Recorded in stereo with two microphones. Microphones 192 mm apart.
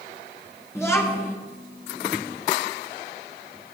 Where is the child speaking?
15° left (ahead or behind), 1.2 m.